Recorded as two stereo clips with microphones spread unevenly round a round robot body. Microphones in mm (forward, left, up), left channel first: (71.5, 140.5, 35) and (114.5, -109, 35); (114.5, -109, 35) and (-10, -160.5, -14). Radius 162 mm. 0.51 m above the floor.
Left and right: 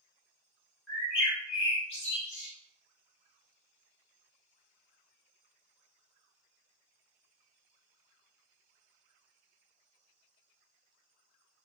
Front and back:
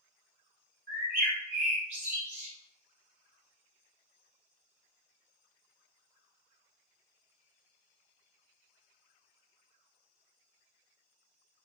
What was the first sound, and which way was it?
A bird, 155° left.